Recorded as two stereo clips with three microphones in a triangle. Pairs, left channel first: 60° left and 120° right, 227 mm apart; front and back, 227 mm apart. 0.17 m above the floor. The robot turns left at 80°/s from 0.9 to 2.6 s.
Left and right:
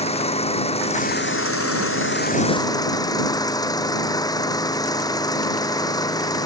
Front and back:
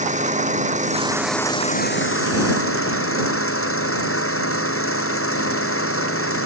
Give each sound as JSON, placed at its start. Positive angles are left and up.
{"t": 0.0, "sound": "an engine running", "azimuth_deg": 120}